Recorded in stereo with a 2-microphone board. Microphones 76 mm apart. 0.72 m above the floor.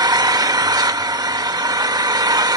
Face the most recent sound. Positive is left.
turn(degrees=-60)  # may be behind; listen again after turning